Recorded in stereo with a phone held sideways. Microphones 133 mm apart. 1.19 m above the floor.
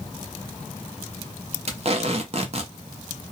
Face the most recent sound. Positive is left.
turn(degrees=-45)  # may be behind; listen again after turning